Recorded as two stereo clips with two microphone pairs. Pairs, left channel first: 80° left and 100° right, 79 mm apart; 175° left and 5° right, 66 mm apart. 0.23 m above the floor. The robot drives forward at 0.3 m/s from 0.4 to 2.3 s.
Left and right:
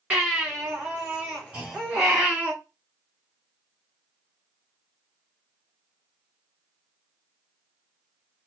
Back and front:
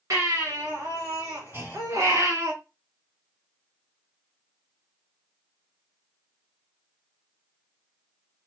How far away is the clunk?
About 1.9 m.